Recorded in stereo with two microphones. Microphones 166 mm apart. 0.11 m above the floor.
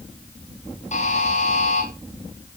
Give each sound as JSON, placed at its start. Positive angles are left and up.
{"t": 0.9, "sound": "a buzzer", "side_deg": 45, "distance_m": 4.0}